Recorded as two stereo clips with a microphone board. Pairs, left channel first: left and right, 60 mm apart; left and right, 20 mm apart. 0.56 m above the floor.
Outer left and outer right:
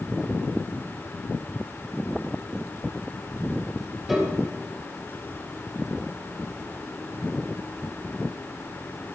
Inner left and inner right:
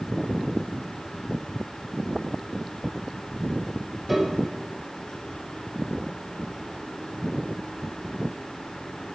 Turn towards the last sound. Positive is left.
turn(degrees=-5)  # may be behind; listen again after turning